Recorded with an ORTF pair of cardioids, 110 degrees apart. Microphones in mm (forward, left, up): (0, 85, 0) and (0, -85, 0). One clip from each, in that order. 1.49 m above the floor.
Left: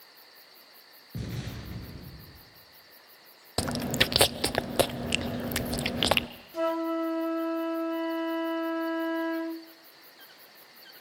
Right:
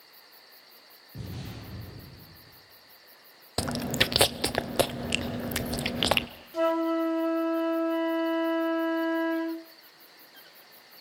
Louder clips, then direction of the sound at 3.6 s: Even; straight ahead.